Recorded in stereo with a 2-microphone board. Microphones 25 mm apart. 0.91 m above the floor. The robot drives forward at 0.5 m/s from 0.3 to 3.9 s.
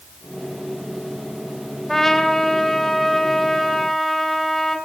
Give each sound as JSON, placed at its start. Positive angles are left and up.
{"t": 1.9, "sound": "a trumpet", "side_deg": 20, "distance_m": 2.5}